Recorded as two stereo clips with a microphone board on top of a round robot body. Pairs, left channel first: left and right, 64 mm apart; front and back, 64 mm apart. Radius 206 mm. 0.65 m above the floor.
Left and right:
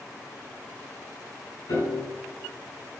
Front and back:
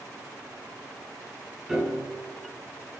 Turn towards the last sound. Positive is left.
turn(degrees=95)